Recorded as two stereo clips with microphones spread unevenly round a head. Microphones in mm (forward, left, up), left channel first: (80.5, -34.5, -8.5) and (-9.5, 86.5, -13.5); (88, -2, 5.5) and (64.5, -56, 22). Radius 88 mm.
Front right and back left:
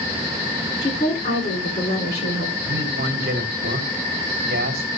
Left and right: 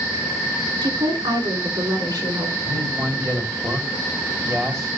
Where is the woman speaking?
110° right, 3.5 m; by 2.5 s 95° right, 5.5 m.